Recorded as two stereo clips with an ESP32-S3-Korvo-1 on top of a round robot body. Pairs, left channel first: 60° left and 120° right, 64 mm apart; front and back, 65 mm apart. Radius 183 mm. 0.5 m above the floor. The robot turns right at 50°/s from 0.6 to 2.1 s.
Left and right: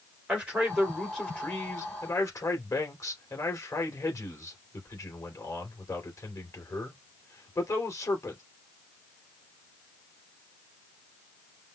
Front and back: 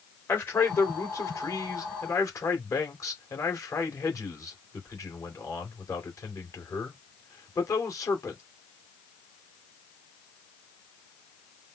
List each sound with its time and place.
0.3 s a man speaking: 45° right, 2.5 m; by 8.4 s 30° left, 2.5 m